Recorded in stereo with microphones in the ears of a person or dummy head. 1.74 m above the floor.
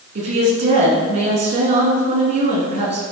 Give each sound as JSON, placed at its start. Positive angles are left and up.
{"t": 0.1, "sound": "a woman speaking", "side_deg": -30, "distance_m": 2.5}